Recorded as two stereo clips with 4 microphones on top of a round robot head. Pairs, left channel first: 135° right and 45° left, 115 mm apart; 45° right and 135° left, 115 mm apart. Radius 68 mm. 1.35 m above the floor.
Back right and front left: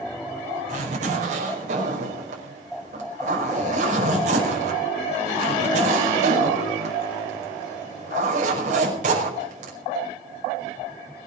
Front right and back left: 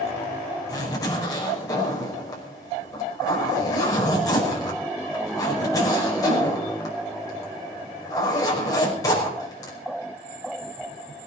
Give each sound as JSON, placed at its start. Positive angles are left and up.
{"t": 0.7, "sound": "a zipper", "azimuth_deg": 20, "distance_m": 5.5}